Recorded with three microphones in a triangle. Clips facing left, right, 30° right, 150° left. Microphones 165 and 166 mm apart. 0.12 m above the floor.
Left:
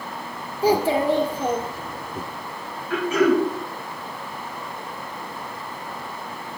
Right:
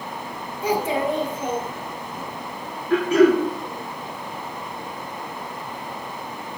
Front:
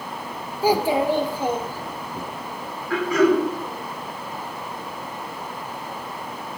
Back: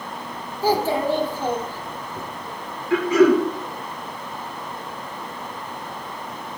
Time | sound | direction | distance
0.6 | a child speaking | 40° left | 1.1 m
2.9 | throat clearing | 145° right | 4.5 m